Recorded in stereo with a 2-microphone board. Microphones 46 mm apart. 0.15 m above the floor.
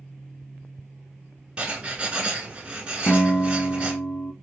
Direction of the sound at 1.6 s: 25° right (ahead or behind).